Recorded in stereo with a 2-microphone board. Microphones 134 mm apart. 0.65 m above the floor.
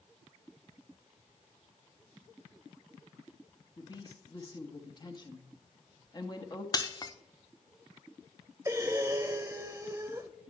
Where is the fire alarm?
No fire alarm in this recording.